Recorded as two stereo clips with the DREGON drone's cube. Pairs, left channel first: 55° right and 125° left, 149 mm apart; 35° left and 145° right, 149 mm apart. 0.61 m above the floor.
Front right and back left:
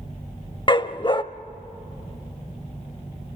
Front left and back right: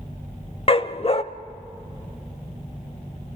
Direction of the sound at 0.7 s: 5° right.